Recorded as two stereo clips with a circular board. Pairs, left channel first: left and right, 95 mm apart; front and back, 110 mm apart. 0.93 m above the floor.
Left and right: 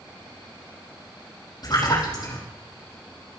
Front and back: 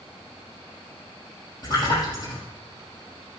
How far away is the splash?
About 7 m.